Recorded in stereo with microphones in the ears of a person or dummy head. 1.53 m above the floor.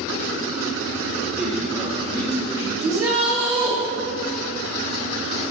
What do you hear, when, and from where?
1.4 s a man speaking: 5° right (ahead or behind), 1.5 m; by 3.8 s 50° left (ahead or behind), 4 m
2.8 s a shout: 15° right (ahead or behind), 1.5 m